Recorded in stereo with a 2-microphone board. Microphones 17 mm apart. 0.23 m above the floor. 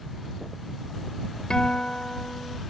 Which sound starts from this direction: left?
A guitar, at 1.5 s.